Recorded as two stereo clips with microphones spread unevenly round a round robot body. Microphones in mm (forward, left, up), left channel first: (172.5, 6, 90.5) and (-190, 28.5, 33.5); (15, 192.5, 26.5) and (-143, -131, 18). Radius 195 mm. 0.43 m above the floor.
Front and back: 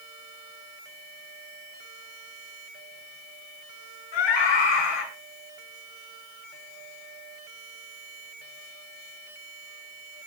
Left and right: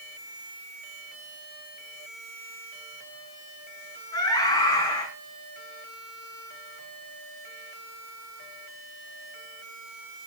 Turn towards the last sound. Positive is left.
turn(degrees=-15)